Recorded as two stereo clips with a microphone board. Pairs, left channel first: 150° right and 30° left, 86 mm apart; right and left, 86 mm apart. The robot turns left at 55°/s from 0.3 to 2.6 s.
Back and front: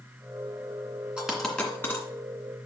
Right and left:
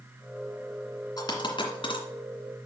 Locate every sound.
1.2 s a dropped coin: 45° right, 2 m; by 2.0 s 95° right, 2 m